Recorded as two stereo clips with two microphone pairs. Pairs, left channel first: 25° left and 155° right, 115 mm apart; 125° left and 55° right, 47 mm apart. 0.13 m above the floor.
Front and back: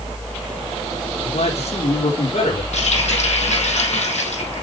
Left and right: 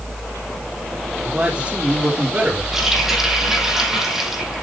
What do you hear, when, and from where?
1.2 s a man speaking: 15° left, 6 m; by 2.6 s straight ahead, 6 m
2.7 s a running tap: 25° left, 3 m